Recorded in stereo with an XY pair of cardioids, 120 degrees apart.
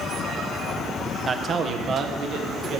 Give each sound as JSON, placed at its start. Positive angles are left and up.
{"t": 1.2, "sound": "a man speaking", "azimuth_deg": -30, "distance_m": 0.7}